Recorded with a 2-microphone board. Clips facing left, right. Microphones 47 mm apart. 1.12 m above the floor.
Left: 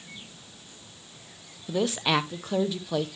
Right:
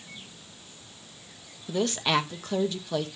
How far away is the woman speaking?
About 0.7 m.